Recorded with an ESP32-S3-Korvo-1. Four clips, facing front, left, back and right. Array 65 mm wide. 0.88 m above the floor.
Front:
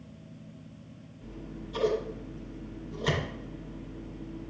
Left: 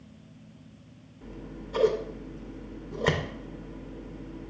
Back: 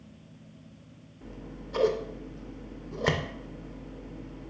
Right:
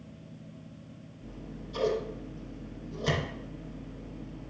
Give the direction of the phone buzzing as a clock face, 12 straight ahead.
No phone buzzing in this recording.